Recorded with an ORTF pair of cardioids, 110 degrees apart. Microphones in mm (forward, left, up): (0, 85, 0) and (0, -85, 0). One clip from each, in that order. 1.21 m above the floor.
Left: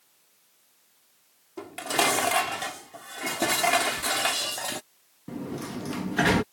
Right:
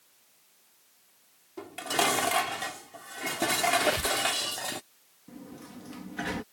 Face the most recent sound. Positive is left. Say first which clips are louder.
# left 11 dB
turn(degrees=65)